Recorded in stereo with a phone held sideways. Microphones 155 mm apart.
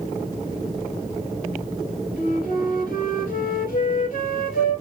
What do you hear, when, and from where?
2.2 s a flute: 65° left (ahead or behind), 2 m